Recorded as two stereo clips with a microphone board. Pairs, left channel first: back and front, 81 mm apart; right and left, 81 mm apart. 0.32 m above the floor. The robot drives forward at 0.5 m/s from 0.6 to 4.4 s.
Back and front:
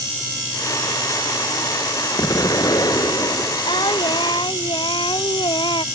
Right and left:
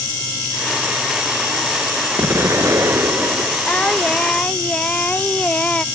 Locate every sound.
2.2 s an explosion: 140° left; by 3.6 s 145° left
3.7 s singing: 165° right